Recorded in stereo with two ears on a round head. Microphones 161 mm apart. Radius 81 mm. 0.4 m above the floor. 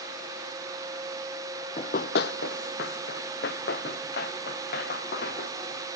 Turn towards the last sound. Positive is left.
turn(degrees=55)  # may be behind; listen again after turning